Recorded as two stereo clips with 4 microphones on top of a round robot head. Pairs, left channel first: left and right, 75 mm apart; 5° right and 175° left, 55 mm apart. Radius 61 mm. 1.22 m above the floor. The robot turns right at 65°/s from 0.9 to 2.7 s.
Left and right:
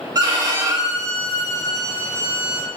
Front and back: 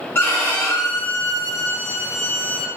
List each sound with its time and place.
0.1 s a violin: 55° right, 0.6 m; by 2.7 s 60° left, 0.6 m